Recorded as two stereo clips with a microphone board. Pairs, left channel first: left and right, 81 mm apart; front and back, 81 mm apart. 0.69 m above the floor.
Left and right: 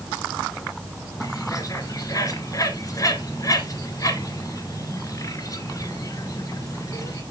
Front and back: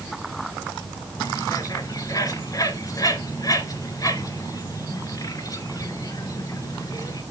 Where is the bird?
45° left, 2.0 m.